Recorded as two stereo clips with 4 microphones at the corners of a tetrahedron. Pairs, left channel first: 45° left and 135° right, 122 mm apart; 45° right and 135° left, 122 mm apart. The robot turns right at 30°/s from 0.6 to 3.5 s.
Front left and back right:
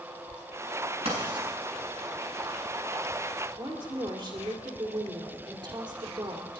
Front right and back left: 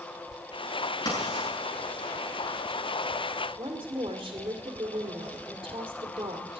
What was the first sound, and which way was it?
Writing, 105° right.